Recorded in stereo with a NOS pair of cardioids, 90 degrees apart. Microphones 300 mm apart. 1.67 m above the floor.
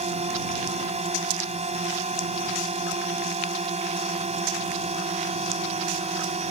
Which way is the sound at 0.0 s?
20° right.